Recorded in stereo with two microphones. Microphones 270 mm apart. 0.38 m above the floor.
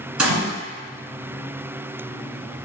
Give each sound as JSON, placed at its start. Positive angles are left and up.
{"t": 0.2, "sound": "a gunshot", "side_deg": -80, "distance_m": 1.3}